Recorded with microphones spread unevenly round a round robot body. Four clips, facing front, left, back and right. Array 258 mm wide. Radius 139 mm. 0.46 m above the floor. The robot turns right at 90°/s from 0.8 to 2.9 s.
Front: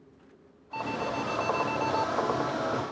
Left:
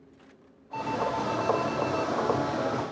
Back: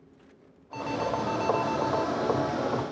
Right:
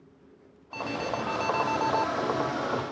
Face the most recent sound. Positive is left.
turn(degrees=40)